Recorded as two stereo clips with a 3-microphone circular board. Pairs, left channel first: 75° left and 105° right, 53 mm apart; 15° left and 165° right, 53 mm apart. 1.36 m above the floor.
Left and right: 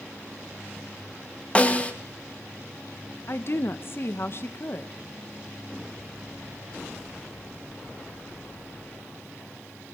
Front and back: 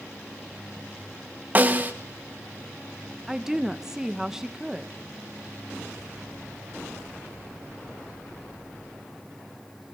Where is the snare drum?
140° left, 1.8 m.